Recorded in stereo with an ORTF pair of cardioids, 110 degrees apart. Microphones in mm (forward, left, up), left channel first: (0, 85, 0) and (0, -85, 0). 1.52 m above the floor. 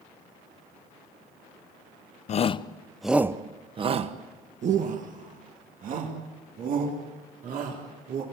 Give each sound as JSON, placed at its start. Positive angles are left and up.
{"t": 2.3, "sound": "a shout", "azimuth_deg": 45, "distance_m": 0.8}